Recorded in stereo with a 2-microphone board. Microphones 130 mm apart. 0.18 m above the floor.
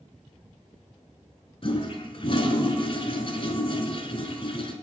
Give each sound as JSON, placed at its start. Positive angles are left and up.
{"t": 1.6, "sound": "a toilet flushing", "side_deg": 45, "distance_m": 0.9}